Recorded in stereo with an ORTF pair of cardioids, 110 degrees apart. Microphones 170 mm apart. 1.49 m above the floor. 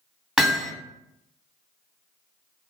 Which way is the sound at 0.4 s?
5° right.